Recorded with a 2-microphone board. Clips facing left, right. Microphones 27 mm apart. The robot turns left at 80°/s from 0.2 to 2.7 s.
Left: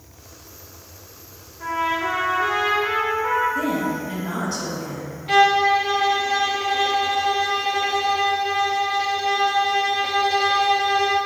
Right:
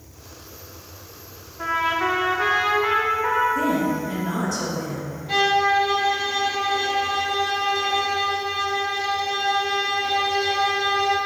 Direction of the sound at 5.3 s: 65° left (ahead or behind).